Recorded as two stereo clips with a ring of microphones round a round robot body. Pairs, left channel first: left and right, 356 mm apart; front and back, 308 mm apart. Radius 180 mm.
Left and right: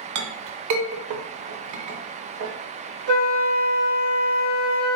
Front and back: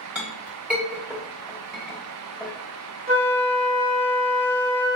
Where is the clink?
95° right, 0.7 m.